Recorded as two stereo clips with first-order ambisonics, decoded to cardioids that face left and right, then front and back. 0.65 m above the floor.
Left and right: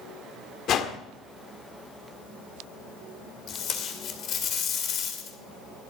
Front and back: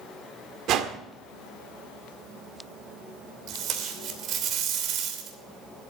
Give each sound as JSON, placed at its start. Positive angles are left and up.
{"t": 0.7, "sound": "a whoosh", "azimuth_deg": 140, "distance_m": 1.3}
{"t": 3.5, "sound": "tape being pulled", "azimuth_deg": 140, "distance_m": 2.5}